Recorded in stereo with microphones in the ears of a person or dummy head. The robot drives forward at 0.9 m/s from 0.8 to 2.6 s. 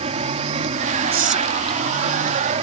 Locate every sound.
0.0 s an aircraft: 30° right (ahead or behind)
1.1 s whispering: 45° right (ahead or behind); by 1.9 s 20° right (ahead or behind)